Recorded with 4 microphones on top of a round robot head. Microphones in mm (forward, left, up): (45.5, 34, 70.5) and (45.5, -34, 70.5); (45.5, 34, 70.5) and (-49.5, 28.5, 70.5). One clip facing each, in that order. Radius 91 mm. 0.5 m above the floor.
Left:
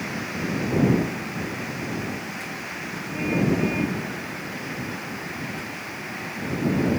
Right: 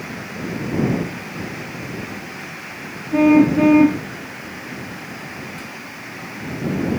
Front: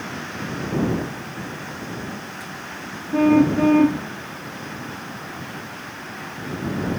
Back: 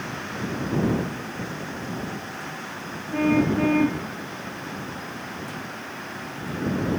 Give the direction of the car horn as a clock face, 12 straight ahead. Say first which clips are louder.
Right 11 dB, front 5 dB; 2 o'clock.